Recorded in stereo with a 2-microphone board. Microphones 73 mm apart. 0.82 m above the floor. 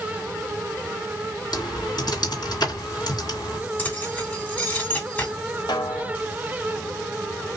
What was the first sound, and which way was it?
Typing on a keyboard, 65° left (ahead or behind).